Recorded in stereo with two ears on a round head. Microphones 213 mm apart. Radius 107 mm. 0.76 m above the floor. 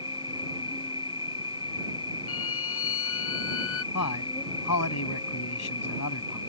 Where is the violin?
60° left (ahead or behind).